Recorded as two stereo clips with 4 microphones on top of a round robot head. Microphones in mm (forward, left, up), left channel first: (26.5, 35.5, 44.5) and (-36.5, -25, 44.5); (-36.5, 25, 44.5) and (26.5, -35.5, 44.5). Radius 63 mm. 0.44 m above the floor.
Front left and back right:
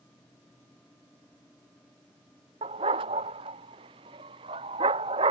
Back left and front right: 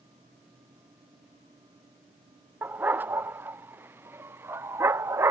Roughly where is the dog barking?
Behind right.